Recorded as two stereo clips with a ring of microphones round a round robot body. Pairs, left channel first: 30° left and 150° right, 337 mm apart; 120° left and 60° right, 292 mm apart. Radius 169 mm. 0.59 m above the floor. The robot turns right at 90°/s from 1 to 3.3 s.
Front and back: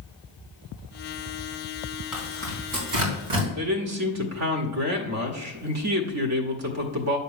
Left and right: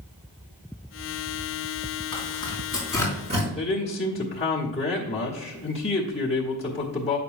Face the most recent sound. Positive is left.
turn(degrees=-175)